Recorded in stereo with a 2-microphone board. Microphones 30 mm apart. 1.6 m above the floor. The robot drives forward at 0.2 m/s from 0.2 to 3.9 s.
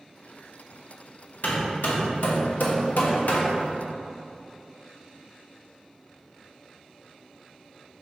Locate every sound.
1.4 s hammering: 70° left (ahead or behind), 1.2 m; by 3.6 s 75° left (ahead or behind), 1.1 m